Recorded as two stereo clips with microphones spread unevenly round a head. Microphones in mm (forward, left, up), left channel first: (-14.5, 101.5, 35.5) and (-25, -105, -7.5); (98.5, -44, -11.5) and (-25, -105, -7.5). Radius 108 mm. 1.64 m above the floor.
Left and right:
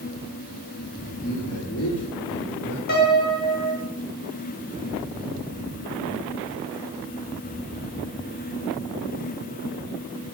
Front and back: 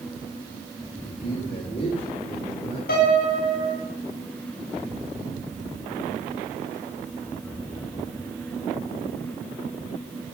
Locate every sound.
1.0 s a man speaking: 80° left, 6 m; by 2.8 s 90° left, 6 m
2.9 s a piano: 40° left, 5 m